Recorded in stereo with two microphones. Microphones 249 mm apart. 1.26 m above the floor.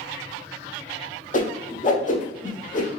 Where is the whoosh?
30° left (ahead or behind), 0.6 m.